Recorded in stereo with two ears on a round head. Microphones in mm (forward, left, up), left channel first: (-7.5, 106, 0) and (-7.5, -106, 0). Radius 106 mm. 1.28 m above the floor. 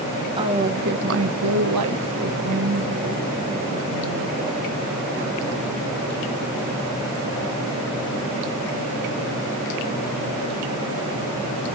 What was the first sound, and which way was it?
A woman speaking, 20° right (ahead or behind).